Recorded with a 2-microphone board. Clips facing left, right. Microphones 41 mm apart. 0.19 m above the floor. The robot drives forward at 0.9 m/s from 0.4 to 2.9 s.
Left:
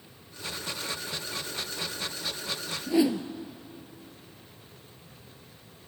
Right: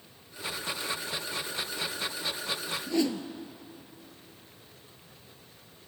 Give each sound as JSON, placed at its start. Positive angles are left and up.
{"t": 2.9, "sound": "a whoosh", "side_deg": 15, "distance_m": 1.1}